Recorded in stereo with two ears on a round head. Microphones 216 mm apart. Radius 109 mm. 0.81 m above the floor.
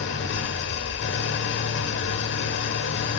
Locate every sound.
0.0 s an engine running: 50° left (ahead or behind), 0.9 m